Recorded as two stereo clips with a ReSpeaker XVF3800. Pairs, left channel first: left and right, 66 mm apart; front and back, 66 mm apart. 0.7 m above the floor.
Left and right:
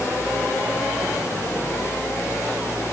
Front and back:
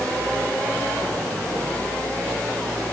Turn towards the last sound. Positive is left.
No sound to turn to.